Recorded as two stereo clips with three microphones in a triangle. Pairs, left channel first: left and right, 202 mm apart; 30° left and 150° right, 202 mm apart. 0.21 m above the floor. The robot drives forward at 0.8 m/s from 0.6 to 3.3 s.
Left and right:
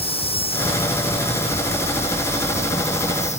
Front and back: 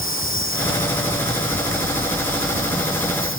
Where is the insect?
30° left; by 3.4 s 35° left.